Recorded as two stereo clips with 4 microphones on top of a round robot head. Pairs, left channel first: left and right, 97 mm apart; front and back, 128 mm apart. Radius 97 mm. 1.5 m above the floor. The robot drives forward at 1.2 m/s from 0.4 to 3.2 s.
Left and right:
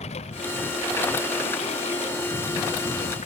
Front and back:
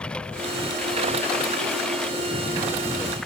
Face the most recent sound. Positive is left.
turn(degrees=85)